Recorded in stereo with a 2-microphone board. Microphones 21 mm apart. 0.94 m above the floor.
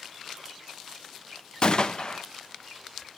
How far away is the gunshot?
About 0.6 m.